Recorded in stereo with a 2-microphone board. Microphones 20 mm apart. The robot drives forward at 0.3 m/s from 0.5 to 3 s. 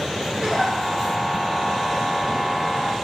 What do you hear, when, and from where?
0.4 s a giggle: 75° right (ahead or behind), 2 m